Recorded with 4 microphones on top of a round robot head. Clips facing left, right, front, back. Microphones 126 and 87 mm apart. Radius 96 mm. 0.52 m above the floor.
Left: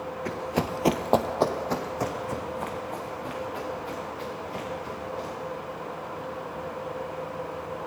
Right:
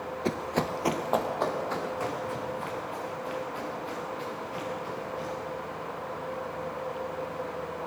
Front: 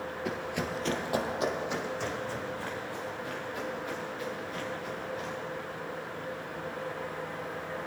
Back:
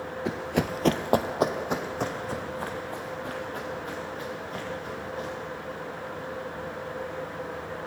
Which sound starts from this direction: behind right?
Running footsteps, at 0.2 s.